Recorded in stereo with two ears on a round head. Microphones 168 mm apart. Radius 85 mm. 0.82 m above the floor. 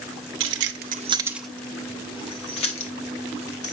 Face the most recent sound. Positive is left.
turn(degrees=40)  # may be behind; listen again after turning